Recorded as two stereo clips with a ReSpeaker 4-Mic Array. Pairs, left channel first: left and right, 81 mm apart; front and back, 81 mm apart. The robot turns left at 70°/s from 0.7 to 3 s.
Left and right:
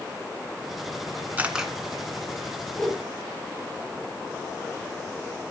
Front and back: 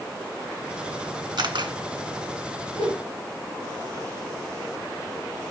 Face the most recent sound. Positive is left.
turn(degrees=-5)